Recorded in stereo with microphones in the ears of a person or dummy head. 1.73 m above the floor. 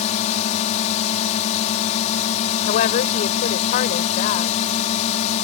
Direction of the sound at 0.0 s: 40° left (ahead or behind).